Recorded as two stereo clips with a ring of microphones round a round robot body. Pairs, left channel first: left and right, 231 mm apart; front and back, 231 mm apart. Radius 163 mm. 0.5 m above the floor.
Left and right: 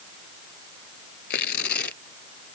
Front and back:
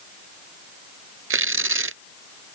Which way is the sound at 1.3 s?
150° left.